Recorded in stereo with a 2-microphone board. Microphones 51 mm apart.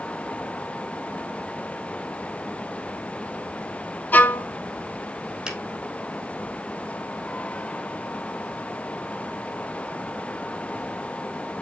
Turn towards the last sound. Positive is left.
turn(degrees=-15)  # may be behind; listen again after turning